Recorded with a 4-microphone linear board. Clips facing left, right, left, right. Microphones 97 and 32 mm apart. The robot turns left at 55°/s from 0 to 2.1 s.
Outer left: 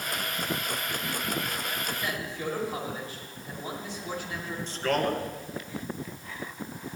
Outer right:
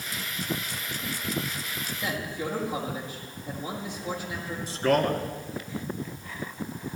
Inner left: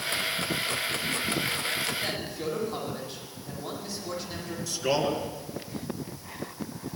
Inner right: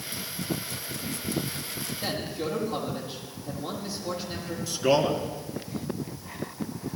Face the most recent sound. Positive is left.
turn(degrees=-10)  # may be behind; listen again after turning